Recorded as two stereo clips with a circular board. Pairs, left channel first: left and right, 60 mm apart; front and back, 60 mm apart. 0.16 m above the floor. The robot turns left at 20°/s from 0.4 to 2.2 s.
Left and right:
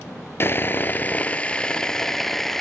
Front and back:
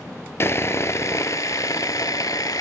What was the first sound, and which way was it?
Sawing, 45° left.